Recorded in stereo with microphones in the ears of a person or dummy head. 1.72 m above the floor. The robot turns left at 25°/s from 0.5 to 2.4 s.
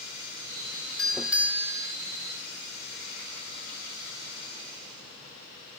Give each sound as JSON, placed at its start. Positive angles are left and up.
{"t": 1.0, "sound": "a doorbell", "side_deg": 5}